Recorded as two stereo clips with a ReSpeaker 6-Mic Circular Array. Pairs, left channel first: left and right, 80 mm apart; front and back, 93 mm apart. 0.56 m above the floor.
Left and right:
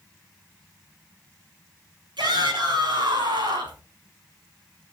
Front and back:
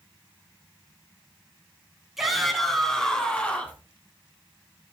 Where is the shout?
90° right, 5 m; by 3.8 s 70° right, 5 m.